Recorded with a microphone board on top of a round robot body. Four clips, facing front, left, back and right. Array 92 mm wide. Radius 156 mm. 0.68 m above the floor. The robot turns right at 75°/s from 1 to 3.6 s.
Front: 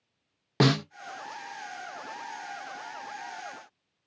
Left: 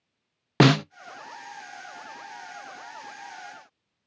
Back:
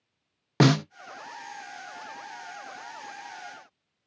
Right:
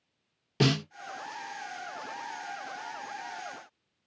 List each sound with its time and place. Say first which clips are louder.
0.6 s a snare drum: left 8 dB, back 3 dB; 100° left, 0.5 m